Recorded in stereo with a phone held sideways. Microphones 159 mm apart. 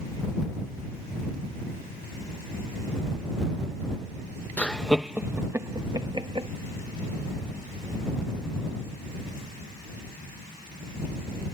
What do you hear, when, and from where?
4.6 s laughter: 10° left (ahead or behind); by 6.5 s 35° right (ahead or behind)